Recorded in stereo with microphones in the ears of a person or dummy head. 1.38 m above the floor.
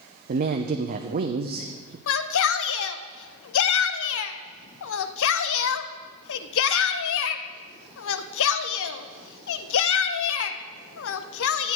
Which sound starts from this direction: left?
A shout, at 2.1 s.